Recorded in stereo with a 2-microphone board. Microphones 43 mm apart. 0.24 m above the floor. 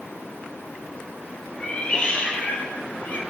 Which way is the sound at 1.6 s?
25° left (ahead or behind).